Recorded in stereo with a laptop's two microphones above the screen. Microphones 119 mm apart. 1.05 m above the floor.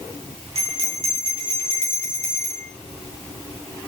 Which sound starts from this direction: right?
A bell, at 0.6 s.